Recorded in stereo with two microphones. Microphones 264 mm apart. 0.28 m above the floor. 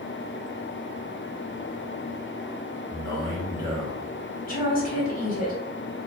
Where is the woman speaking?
35° left (ahead or behind), 1.5 m.